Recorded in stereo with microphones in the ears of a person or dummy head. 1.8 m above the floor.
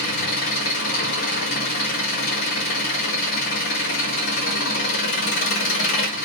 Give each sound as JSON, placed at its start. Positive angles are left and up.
{"t": 0.0, "sound": "an engine running", "side_deg": 50, "distance_m": 1.2}